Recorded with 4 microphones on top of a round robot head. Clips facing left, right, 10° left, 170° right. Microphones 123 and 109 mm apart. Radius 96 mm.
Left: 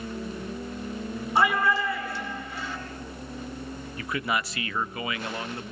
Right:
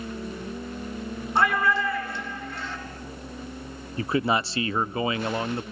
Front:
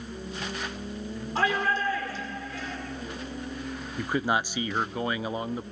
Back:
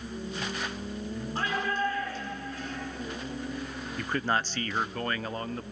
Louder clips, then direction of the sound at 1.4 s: Even, front 4 dB; straight ahead.